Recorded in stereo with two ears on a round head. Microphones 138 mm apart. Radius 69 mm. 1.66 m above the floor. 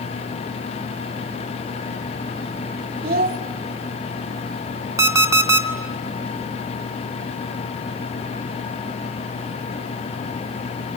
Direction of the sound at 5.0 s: 20° right (ahead or behind).